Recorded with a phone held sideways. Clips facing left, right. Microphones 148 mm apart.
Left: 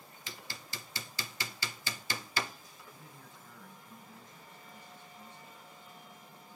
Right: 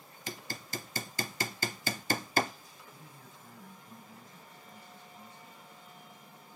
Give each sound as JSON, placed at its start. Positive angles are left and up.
{"t": 0.3, "sound": "hammering", "side_deg": -45, "distance_m": 0.6}
{"t": 2.9, "sound": "a man speaking", "side_deg": -40, "distance_m": 8.5}